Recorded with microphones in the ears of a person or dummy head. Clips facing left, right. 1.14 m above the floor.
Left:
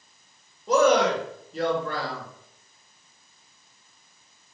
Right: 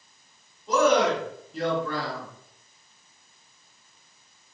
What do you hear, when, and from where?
0.7 s a man speaking: 50° left (ahead or behind), 1.3 m